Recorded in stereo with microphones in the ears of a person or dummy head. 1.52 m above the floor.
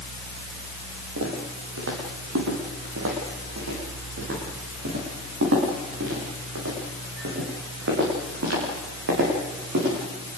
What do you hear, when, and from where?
1.2 s footsteps: 75° right (ahead or behind), 7 m; by 9.9 s 65° right (ahead or behind), 12.5 m